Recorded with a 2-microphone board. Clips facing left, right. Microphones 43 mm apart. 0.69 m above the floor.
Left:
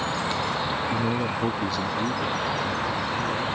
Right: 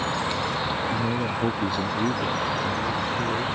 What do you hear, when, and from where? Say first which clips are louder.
0.9 s a man speaking: even; 25° left (ahead or behind); by 3.5 s 55° right (ahead or behind)